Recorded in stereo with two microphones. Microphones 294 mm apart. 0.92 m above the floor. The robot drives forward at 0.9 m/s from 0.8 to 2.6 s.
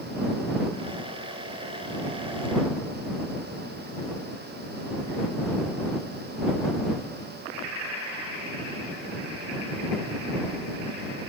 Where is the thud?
No thud in this recording.